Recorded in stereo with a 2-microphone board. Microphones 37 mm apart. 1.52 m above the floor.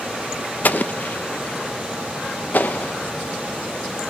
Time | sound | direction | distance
0.6 | an explosion | 55° left (ahead or behind) | 0.9 m